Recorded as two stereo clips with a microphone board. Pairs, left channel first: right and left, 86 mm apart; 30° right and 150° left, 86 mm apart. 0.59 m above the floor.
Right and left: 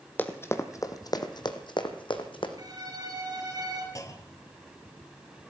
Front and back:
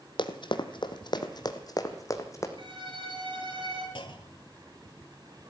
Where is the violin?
130° left, 5 m.